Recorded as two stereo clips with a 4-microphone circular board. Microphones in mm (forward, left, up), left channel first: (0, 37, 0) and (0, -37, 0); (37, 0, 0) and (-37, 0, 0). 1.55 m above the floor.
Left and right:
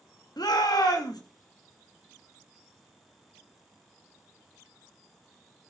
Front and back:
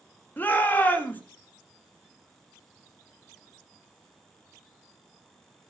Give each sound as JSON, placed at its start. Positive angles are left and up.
{"t": 0.4, "sound": "a shout", "azimuth_deg": 65, "distance_m": 3.0}